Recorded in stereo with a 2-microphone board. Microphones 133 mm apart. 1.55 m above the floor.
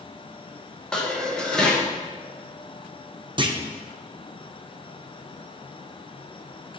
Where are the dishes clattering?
5° left (ahead or behind), 0.9 m.